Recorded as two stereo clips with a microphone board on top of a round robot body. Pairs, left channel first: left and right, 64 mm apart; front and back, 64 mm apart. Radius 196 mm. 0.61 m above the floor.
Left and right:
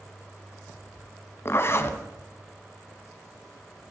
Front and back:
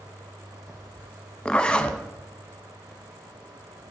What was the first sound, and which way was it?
A zipper, 70° left.